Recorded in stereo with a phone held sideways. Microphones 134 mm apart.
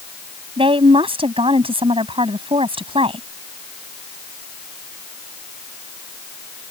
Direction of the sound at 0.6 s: 45° right (ahead or behind).